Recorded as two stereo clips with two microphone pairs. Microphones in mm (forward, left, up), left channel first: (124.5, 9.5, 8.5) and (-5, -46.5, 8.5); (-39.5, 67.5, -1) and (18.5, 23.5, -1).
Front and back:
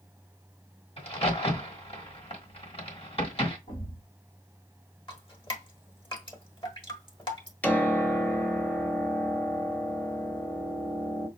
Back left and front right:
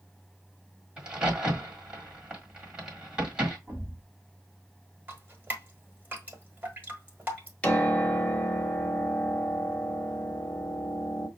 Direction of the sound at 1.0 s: 35° left.